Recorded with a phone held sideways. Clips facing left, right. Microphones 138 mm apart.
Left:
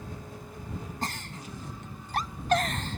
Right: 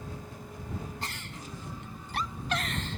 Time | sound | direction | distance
1.0 | a giggle | 45° left (ahead or behind) | ?